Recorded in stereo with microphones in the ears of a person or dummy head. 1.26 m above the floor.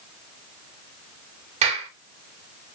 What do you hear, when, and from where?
1.6 s a clap: 40° right (ahead or behind), 4 m